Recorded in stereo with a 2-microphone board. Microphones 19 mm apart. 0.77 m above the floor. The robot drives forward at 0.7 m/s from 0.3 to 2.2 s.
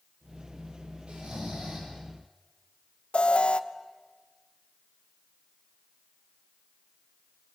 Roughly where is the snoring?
Right.